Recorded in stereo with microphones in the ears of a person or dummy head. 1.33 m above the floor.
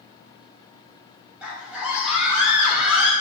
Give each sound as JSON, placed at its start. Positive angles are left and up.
{"t": 1.4, "sound": "a scream", "side_deg": -10, "distance_m": 0.8}